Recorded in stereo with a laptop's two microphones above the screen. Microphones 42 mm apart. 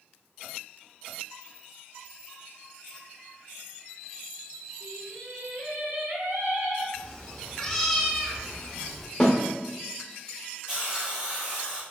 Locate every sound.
4.8 s singing: 50° right (ahead or behind), 1.7 m
6.9 s a cat meowing: 5° left (ahead or behind), 1.0 m
9.2 s a snare drum: 20° left (ahead or behind), 0.6 m
10.7 s a hiss: 20° right (ahead or behind), 0.8 m